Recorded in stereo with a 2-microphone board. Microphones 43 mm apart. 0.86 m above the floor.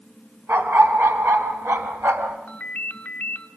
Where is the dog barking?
60° right (ahead or behind), 3.5 m; by 2.4 s 85° right, 3.5 m.